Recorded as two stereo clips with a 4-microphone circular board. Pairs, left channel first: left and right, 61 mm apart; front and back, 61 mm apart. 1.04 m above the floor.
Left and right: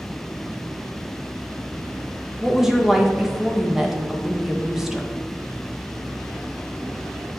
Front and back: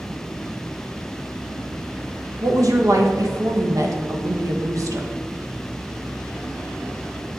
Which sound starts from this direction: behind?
A woman speaking, at 2.4 s.